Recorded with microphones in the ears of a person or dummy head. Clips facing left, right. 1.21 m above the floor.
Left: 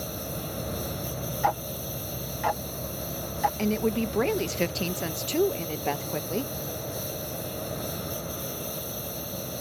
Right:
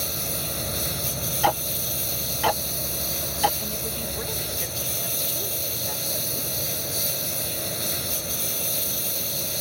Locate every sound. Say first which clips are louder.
0.0 s a lawn mower: right 1 dB; 30° right (ahead or behind)
1.4 s ticking: right 4 dB; 45° right (ahead or behind)
3.6 s a woman speaking: left 8 dB; 75° left (ahead or behind)